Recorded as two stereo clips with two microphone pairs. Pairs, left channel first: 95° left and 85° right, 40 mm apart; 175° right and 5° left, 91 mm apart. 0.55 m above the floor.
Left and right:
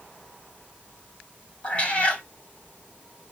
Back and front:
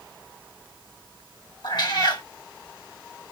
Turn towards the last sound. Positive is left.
turn(degrees=150)